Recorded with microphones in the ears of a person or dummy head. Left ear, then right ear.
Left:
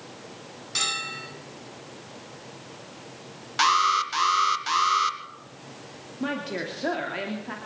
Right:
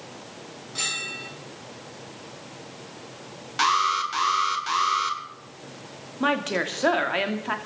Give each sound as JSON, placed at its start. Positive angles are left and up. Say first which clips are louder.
{"t": 0.8, "sound": "a bell", "louder": "left 1 dB", "side_deg": 80, "distance_m": 10.0}
{"t": 3.6, "sound": "an alarm", "louder": "left 1 dB", "side_deg": 10, "distance_m": 1.9}
{"t": 6.2, "sound": "a woman speaking", "louder": "right 6 dB", "side_deg": -40, "distance_m": 2.5}